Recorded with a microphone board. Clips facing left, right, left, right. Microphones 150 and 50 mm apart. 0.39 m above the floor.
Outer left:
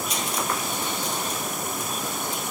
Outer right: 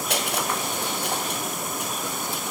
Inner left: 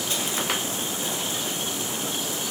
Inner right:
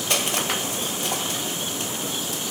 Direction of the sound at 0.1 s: 70° right (ahead or behind).